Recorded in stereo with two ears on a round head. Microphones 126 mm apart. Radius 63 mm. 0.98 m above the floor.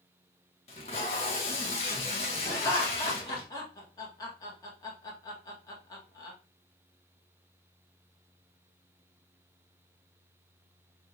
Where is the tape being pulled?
45° left (ahead or behind), 1.4 m.